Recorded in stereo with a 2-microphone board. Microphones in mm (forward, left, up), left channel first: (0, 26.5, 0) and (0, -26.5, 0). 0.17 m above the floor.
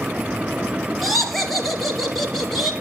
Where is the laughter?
Centre (ahead or behind), 3.5 m.